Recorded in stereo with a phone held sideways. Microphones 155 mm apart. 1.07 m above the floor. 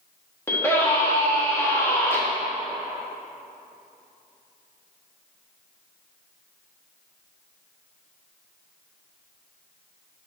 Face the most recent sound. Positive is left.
turn(degrees=15)  # may be behind; listen again after turning